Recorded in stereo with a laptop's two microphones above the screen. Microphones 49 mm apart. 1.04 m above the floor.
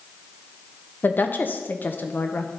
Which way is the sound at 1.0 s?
40° left (ahead or behind).